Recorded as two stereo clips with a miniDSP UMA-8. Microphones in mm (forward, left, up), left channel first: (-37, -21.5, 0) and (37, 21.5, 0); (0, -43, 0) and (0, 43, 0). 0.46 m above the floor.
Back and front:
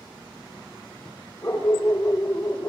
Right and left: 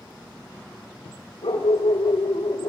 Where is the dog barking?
80° right, 7.5 m; by 2.7 s 75° right, 7.5 m.